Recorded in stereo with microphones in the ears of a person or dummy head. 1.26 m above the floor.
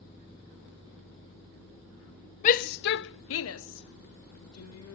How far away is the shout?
About 0.7 m.